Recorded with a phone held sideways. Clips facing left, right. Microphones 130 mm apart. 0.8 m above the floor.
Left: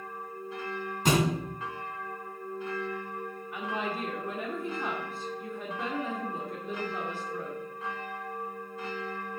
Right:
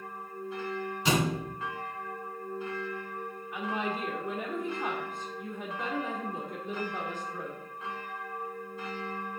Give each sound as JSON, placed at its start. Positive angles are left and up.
{"t": 1.1, "sound": "a thud", "side_deg": 45, "distance_m": 3.0}
{"t": 3.5, "sound": "a woman speaking", "side_deg": 5, "distance_m": 2.5}